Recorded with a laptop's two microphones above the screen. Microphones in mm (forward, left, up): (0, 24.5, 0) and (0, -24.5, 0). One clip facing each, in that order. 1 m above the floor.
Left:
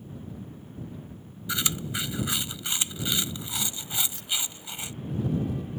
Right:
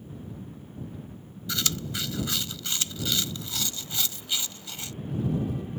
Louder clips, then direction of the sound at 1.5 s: Left 1 dB; 20° left (ahead or behind).